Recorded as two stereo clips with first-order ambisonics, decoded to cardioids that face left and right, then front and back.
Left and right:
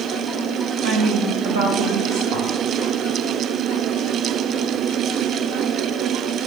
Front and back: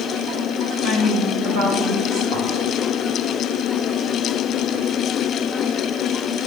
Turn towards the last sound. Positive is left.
turn(degrees=-110)